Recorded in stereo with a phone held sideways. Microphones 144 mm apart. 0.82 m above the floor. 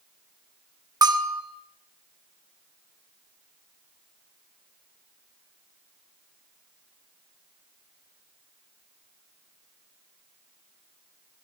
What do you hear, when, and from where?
1.0 s a bell: 25° right (ahead or behind), 1.8 m